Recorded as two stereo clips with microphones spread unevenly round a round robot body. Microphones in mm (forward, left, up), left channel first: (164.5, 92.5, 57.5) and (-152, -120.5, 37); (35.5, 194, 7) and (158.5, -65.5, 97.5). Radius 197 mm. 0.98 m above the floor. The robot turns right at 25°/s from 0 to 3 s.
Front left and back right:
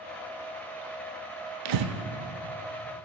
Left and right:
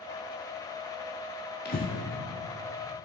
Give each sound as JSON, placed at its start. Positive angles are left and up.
{"t": 1.6, "sound": "breathing", "azimuth_deg": -175, "distance_m": 0.7}